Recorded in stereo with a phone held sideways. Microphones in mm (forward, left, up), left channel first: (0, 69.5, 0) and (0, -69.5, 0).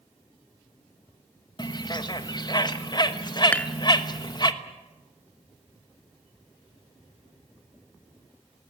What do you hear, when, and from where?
1.6 s a bird: 35° left (ahead or behind), 1.2 m
3.5 s dishes clattering: 10° left (ahead or behind), 1.0 m